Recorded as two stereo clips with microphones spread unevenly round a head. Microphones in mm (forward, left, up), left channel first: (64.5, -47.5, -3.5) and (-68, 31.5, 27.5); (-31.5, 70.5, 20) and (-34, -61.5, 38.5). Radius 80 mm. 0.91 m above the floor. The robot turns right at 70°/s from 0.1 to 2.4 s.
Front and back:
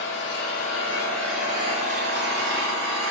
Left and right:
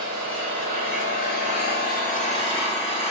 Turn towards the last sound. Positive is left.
turn(degrees=140)